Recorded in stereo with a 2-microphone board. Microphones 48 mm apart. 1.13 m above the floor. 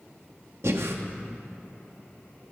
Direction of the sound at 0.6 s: 70° right (ahead or behind).